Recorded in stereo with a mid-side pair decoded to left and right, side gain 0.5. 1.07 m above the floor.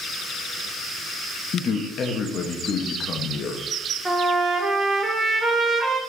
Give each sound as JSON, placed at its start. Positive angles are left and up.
{"t": 1.5, "sound": "a man speaking", "azimuth_deg": 50, "distance_m": 1.2}
{"t": 4.0, "sound": "a trumpet", "azimuth_deg": -30, "distance_m": 2.5}